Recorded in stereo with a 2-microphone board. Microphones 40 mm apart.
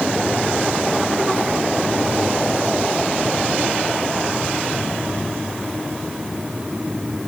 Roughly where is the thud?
I don't hear a thud.